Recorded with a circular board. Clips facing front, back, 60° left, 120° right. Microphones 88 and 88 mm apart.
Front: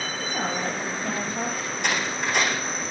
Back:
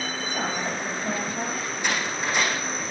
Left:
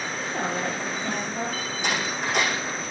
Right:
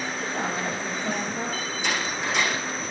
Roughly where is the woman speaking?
Ahead left.